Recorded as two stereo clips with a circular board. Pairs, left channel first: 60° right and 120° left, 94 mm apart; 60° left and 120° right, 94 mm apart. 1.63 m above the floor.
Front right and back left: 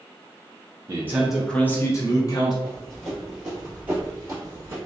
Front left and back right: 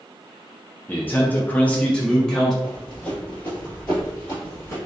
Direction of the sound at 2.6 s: 15° right.